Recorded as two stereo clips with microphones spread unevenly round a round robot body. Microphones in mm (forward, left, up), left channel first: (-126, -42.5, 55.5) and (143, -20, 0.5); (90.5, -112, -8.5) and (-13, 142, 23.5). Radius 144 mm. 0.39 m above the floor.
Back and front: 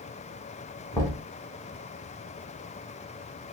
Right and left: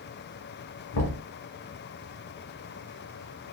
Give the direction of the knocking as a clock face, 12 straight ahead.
3 o'clock.